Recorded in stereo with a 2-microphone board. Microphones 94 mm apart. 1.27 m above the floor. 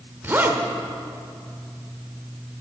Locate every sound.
0.2 s a zipper: 20° right (ahead or behind), 1.0 m